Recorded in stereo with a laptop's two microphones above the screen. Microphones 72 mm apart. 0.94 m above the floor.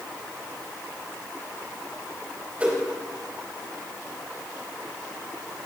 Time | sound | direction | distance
2.6 | a whoosh | 20° right (ahead or behind) | 3.5 m